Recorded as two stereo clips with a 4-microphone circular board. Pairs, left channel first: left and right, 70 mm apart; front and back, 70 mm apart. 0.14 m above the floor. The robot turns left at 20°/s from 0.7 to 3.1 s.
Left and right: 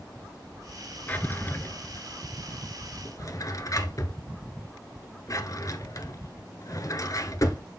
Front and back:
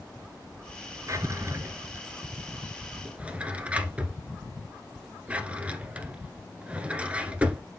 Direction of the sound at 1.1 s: 150° left.